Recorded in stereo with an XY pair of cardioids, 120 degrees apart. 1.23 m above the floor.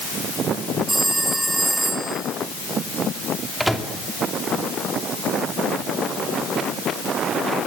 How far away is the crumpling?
No crumpling in this recording.